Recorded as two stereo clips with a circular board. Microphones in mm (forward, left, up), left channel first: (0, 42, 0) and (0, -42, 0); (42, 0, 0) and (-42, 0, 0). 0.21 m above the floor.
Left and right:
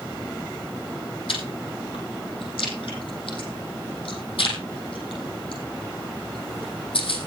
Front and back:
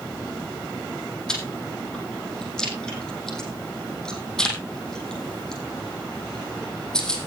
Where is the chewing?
80° left, 4.5 m.